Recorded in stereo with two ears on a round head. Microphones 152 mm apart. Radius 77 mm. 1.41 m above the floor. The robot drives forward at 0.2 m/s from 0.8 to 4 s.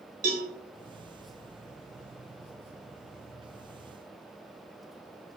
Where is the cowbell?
50° right (ahead or behind), 0.7 m.